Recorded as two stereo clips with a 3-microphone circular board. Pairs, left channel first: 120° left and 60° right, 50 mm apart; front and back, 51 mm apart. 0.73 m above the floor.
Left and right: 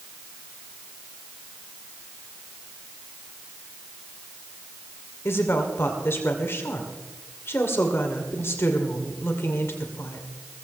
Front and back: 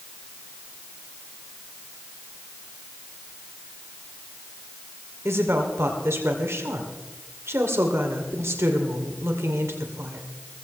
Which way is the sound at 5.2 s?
155° left.